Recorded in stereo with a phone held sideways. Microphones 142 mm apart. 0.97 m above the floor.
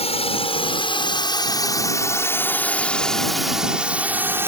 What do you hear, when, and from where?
0.0 s a drone: 45° left (ahead or behind); by 4.5 s 15° right (ahead or behind)